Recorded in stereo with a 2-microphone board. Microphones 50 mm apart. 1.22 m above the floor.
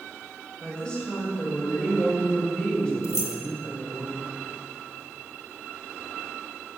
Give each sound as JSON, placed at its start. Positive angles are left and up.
{"t": 0.6, "sound": "a woman speaking", "side_deg": 15, "distance_m": 5.5}
{"t": 3.0, "sound": "keys jangling", "side_deg": 75, "distance_m": 1.8}